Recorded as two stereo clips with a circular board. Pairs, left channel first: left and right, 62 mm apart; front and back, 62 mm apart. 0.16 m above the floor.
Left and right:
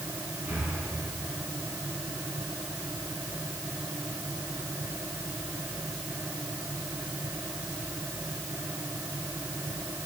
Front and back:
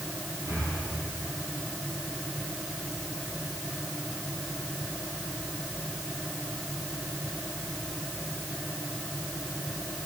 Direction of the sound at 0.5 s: 160° right.